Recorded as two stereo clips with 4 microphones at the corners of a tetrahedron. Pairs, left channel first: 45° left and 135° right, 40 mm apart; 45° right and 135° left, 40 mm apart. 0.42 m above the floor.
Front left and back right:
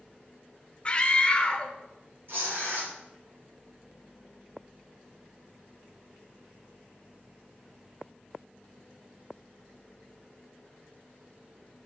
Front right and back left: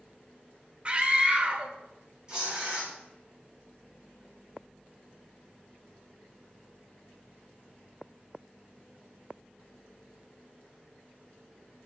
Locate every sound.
0.8 s a scream: 90° left, 1.0 m
2.3 s tearing paper: 160° right, 5 m